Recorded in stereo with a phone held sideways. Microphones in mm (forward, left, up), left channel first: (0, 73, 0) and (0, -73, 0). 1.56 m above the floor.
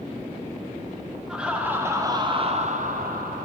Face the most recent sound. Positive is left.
turn(degrees=-80)